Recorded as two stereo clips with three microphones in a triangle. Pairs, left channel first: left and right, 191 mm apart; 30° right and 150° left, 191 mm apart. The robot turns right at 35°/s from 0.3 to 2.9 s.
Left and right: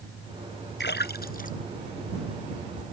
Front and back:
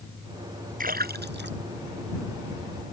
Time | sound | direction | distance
0.8 | a splash | 110° left | ?